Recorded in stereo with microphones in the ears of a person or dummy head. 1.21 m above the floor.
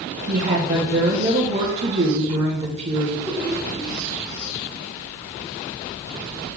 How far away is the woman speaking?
About 1.6 m.